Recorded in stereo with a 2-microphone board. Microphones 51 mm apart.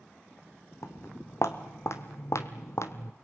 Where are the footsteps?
60° left (ahead or behind), 2 m; by 3.1 s 65° left (ahead or behind), 1.1 m.